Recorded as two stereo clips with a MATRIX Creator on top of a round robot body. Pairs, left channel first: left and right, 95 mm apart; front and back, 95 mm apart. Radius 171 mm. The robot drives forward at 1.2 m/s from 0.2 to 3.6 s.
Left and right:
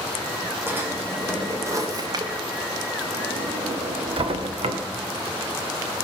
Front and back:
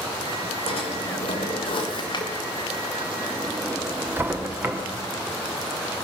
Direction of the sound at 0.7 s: 20° right.